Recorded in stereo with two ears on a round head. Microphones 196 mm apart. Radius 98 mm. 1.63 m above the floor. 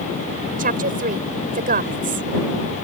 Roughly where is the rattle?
No rattle in this recording.